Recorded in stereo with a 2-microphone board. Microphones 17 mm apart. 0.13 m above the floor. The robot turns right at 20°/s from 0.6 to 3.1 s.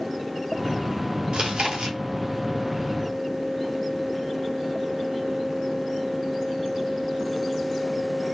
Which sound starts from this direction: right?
Chewing, at 1.3 s.